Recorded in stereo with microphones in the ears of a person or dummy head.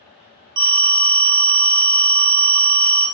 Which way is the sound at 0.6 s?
20° right (ahead or behind).